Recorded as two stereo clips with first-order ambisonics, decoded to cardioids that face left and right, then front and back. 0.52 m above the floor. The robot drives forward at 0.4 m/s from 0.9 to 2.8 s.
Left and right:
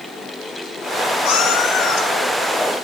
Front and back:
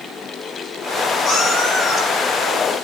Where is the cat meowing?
90° left, 2 m; by 2.7 s 105° left, 2.5 m.